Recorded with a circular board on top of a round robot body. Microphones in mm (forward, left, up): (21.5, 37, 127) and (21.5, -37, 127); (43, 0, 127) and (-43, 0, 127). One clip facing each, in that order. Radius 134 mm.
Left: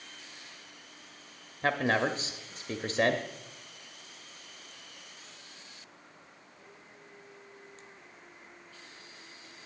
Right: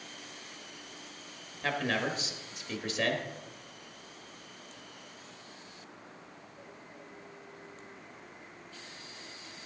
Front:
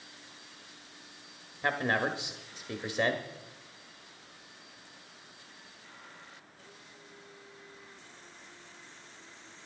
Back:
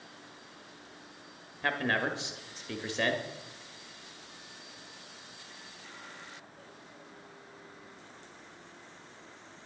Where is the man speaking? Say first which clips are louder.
Left 4 dB, front 1 dB; 70° left, 1.1 m.